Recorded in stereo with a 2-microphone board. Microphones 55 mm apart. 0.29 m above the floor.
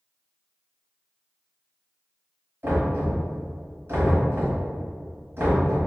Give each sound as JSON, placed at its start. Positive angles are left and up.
{"t": 2.6, "sound": "knocking", "side_deg": -45, "distance_m": 1.4}